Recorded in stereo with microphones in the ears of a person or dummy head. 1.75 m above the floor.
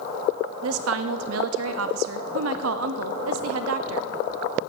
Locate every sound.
0.6 s a woman speaking: 75° right (ahead or behind), 0.6 m